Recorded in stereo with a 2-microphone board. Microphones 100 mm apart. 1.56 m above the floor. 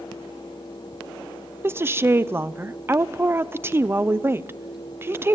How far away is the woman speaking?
About 0.6 m.